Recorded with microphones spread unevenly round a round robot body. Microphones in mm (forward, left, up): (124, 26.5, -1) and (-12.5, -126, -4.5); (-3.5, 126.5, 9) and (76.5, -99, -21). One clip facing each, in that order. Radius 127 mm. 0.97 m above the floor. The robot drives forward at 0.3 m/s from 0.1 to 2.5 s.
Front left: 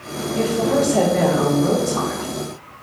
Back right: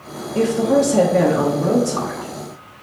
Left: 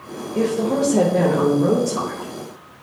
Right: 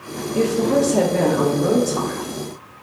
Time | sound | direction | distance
0.3 | a woman speaking | 115° right | 0.5 m